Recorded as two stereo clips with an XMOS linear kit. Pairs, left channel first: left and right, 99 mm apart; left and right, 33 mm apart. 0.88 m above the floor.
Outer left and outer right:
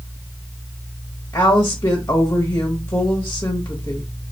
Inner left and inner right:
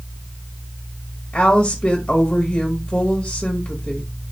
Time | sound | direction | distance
1.3 | a woman speaking | 25° left (ahead or behind) | 0.9 m